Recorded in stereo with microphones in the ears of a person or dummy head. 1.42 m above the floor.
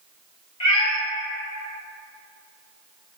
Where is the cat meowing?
25° left (ahead or behind), 0.8 m.